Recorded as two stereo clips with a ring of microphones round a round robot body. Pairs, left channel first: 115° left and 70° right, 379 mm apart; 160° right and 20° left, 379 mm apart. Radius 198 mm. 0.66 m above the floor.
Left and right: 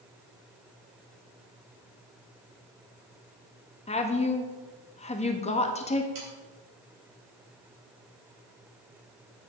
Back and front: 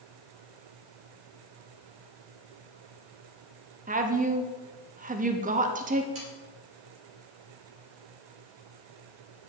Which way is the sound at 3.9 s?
60° left.